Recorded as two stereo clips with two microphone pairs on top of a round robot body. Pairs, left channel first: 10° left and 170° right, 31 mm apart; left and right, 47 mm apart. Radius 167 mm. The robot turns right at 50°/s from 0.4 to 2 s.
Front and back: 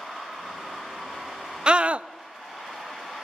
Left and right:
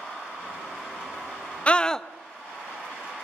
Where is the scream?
145° left, 1.0 m; by 2.1 s 160° left, 1.0 m.